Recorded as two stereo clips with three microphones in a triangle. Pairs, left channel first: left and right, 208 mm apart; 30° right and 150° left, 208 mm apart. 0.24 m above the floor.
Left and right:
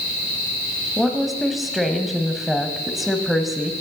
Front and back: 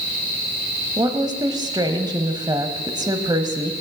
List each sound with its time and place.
1.0 s a woman speaking: straight behind, 1.0 m